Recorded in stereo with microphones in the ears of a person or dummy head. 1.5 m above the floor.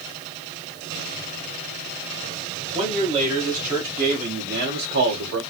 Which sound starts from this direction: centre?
A man speaking, at 2.7 s.